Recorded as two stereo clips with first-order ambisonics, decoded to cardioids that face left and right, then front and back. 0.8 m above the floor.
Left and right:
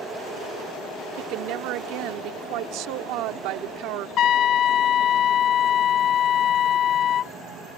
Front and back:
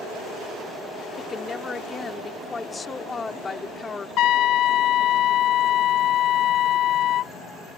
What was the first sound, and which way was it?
A woman speaking, 70° right.